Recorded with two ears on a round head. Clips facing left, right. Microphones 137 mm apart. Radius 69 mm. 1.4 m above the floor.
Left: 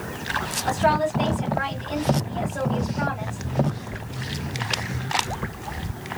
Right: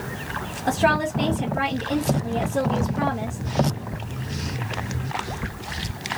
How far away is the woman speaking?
About 1.4 m.